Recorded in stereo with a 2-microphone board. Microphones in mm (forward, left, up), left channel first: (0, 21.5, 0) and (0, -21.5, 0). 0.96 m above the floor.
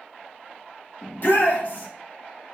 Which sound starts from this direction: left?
A shout, at 1.0 s.